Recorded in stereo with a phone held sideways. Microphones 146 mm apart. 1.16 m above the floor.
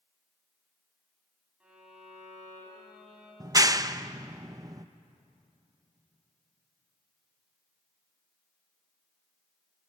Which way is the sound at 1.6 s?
10° right (ahead or behind).